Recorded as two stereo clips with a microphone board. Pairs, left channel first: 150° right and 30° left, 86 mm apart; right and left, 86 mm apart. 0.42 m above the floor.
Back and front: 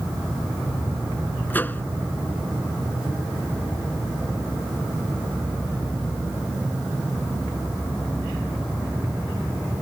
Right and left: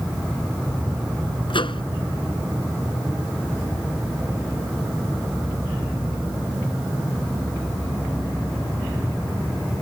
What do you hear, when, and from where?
1.5 s a microwave: 80° right